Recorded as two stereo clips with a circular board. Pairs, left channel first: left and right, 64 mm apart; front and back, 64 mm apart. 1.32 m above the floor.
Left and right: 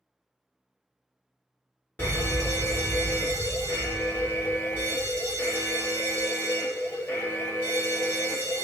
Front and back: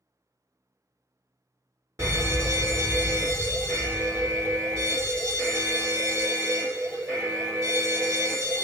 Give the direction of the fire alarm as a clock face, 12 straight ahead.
7 o'clock.